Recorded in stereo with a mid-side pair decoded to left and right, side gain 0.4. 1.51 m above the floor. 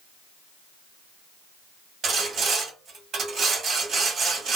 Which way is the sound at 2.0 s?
60° right.